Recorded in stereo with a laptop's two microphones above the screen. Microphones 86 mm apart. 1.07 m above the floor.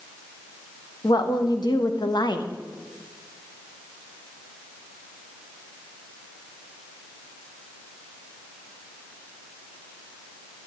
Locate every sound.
1.0 s a woman speaking: 60° left (ahead or behind), 0.9 m